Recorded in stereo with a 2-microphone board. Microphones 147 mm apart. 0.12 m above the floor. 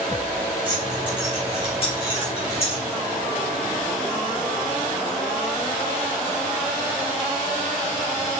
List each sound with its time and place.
0.7 s keys jangling: 35° left (ahead or behind), 6.5 m; by 2.8 s 45° left (ahead or behind), 6.5 m